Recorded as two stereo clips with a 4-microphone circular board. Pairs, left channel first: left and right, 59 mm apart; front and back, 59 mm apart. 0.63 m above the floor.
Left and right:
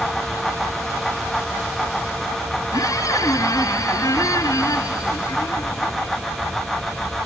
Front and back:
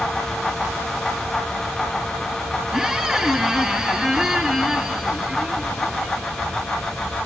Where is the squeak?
95° left, 3 m.